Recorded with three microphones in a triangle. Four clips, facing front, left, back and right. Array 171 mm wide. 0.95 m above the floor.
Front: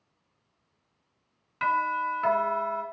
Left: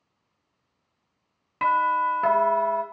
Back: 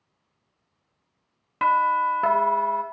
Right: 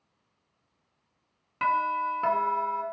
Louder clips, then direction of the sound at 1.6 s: Left 5 dB, back 6 dB; 155° left.